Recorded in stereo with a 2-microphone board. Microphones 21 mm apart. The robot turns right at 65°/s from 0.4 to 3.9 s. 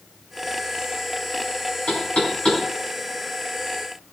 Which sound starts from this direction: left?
Knocking, at 1.9 s.